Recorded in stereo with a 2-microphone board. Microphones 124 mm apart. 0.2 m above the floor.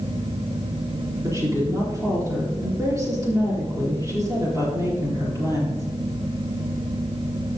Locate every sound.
1.2 s a woman speaking: 25° right (ahead or behind), 4 m